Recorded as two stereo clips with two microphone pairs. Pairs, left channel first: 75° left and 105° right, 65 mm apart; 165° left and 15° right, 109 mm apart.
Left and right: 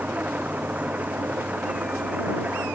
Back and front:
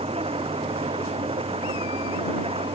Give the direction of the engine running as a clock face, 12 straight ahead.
1 o'clock.